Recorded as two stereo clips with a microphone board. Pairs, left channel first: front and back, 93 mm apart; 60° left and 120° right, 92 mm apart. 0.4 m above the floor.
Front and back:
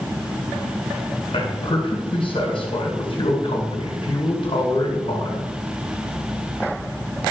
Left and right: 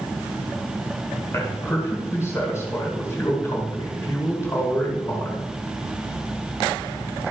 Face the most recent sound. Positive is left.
turn(degrees=0)